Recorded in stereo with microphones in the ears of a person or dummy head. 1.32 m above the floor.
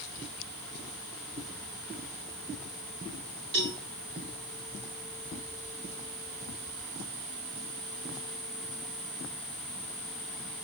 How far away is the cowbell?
About 2.0 m.